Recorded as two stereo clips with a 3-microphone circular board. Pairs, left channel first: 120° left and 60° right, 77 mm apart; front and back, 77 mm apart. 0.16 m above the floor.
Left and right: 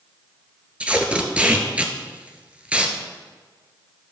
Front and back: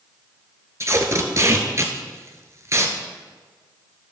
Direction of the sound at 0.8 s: 130° right.